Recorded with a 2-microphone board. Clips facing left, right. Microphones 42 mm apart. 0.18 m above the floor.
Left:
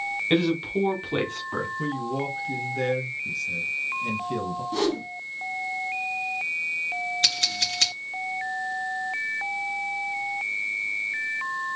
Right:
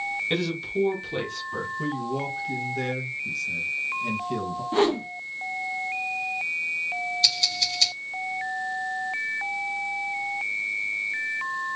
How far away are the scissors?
About 2.5 m.